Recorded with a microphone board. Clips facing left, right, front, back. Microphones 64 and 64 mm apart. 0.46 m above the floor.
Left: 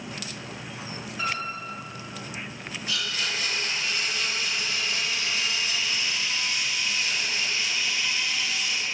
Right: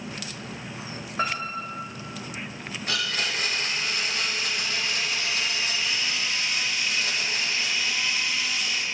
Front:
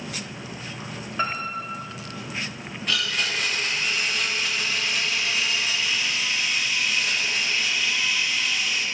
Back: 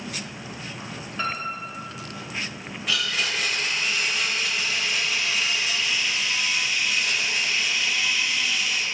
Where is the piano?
70° right, 2.0 m.